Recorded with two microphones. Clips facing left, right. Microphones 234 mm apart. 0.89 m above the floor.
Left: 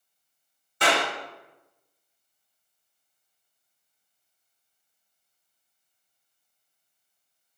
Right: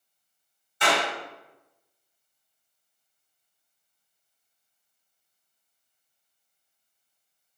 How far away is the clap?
About 2.5 m.